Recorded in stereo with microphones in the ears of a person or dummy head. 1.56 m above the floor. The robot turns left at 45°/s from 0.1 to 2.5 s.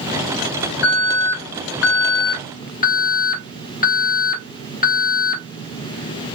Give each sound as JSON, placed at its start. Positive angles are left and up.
{"t": 0.8, "sound": "an alarm", "azimuth_deg": 125, "distance_m": 1.5}